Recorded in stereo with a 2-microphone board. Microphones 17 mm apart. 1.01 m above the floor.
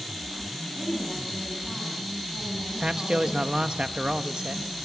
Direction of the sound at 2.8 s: 75° right (ahead or behind).